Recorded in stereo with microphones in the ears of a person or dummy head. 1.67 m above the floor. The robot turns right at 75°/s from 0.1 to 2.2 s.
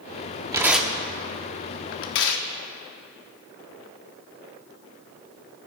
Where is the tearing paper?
20° right (ahead or behind), 1.0 m; by 2.5 s 70° left (ahead or behind), 1.0 m.